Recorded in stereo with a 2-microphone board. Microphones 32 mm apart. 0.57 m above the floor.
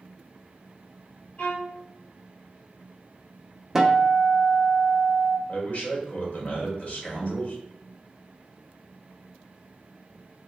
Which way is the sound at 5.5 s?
45° left (ahead or behind).